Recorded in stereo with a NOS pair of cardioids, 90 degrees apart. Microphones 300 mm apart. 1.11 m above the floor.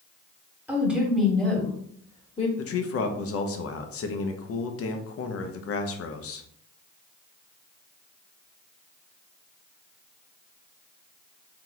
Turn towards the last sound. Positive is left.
turn(degrees=55)